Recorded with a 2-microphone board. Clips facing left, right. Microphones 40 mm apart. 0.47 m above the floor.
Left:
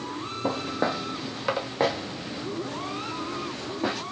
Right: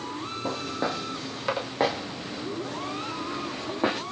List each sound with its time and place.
0.4 s footsteps: 25° left (ahead or behind), 1.6 m; by 4.0 s 30° right (ahead or behind), 2 m